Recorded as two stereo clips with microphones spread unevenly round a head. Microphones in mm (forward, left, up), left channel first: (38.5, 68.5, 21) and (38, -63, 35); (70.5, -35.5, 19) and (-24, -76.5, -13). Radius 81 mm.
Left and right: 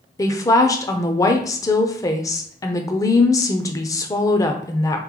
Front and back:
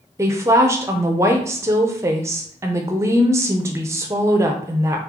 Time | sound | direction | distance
0.2 | a woman speaking | 150° left | 0.5 m